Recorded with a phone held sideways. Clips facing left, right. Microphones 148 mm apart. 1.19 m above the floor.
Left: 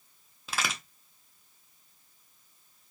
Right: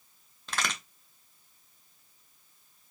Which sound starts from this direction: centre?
A crack, at 0.5 s.